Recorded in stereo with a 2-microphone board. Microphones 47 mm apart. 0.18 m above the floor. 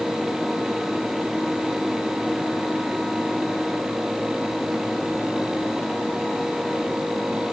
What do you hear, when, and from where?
Only background noise.